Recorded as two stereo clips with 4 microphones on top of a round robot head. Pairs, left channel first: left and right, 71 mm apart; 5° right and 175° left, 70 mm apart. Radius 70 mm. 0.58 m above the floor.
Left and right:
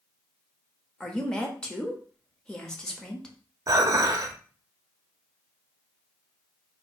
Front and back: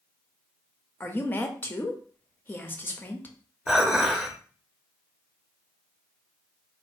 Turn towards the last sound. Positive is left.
turn(degrees=-100)